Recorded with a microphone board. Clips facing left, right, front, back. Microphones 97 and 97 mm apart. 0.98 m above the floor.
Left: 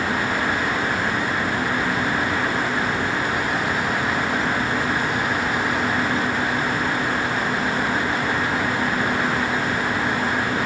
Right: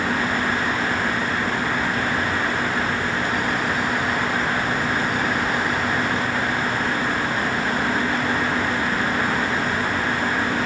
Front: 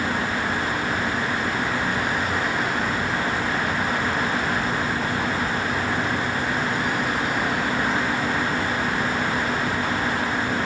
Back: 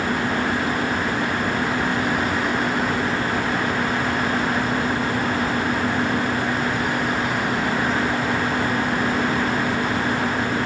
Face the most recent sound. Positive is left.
No sound to turn to.